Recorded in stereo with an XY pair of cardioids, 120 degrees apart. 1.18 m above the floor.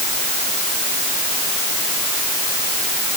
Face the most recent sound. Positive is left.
No sound to turn to.